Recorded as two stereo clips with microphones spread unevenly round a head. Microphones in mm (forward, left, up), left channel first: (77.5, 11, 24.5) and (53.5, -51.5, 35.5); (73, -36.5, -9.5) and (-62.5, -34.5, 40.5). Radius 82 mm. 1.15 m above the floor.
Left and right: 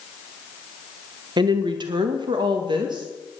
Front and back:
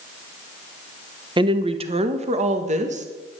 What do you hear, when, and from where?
1.4 s a woman speaking: 115° right, 1.0 m; by 3.1 s 140° right, 1.9 m